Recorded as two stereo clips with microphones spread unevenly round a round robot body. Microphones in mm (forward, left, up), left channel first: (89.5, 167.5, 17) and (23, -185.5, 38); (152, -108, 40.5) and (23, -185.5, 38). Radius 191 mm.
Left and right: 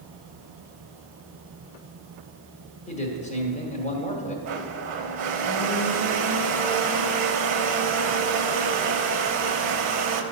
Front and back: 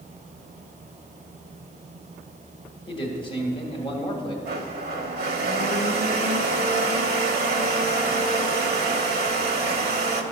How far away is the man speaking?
About 1.3 m.